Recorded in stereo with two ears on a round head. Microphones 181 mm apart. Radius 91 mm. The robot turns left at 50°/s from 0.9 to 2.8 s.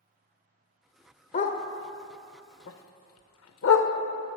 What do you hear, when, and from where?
1.3 s a dog barking: 35° left (ahead or behind), 0.6 m; by 3.9 s 70° left (ahead or behind), 0.6 m